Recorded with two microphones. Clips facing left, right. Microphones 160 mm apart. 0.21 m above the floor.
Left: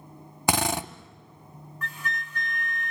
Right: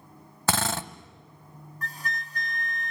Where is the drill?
15° left (ahead or behind), 0.7 m.